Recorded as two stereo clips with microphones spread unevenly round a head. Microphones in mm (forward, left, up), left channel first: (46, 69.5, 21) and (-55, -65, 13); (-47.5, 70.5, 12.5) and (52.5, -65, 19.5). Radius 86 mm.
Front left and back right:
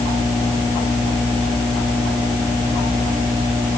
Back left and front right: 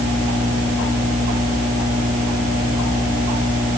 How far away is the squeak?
No squeak in this recording.